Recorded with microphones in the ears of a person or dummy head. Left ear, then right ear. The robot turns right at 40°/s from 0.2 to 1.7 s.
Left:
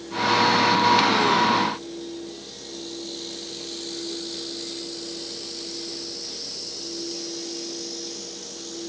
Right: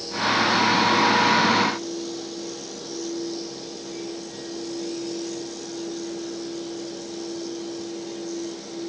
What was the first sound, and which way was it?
Only background noise.